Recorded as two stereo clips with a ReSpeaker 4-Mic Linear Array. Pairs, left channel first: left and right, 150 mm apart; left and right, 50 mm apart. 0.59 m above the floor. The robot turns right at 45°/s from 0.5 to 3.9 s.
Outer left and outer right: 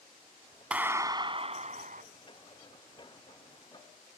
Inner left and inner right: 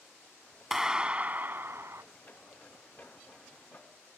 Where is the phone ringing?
No phone ringing in this recording.